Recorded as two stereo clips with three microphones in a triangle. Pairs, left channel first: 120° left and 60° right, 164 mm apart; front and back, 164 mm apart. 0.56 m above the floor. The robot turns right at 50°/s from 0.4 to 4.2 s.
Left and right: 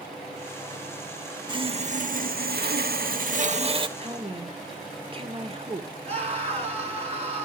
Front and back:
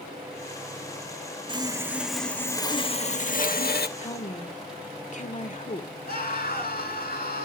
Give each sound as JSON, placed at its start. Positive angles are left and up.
{"t": 1.5, "sound": "sawing", "azimuth_deg": -120, "distance_m": 0.9}
{"t": 4.0, "sound": "a woman speaking", "azimuth_deg": -30, "distance_m": 1.8}
{"t": 6.0, "sound": "a scream", "azimuth_deg": -10, "distance_m": 6.5}